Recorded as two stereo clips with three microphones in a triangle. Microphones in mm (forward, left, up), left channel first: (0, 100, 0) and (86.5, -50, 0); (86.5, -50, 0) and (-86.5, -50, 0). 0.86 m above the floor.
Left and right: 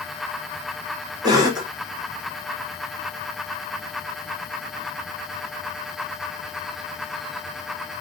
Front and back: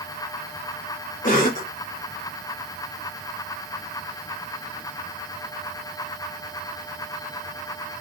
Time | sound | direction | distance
1.2 | a cough | straight ahead | 1.4 m